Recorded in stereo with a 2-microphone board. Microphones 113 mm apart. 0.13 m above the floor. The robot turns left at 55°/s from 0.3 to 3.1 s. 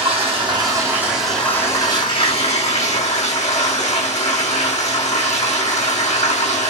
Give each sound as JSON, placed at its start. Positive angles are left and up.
{"t": 0.0, "sound": "running water", "azimuth_deg": -125, "distance_m": 1.8}